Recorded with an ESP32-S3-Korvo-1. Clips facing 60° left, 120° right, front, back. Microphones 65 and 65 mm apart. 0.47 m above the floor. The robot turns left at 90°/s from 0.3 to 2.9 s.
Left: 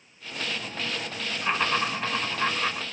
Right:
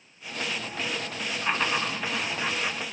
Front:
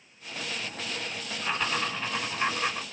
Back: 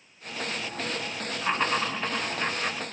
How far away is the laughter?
About 1.7 m.